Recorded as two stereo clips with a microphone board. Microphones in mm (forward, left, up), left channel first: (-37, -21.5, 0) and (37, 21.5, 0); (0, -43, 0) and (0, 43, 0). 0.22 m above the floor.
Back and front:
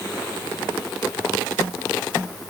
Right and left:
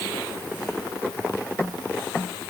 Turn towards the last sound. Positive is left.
No sound to turn to.